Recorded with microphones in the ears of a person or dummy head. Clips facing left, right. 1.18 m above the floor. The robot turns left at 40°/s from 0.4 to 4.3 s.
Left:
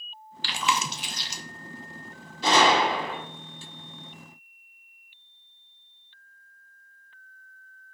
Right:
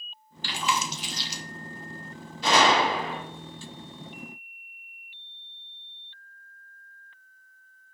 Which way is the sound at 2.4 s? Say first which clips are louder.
Left 1 dB; 80° left.